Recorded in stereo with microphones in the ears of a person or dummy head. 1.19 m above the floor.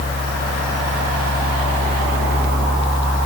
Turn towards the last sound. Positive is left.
No sound to turn to.